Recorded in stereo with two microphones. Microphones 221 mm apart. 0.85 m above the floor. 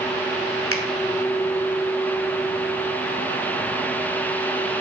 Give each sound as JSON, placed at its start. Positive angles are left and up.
{"t": 0.7, "sound": "a finger snap", "side_deg": 80, "distance_m": 3.0}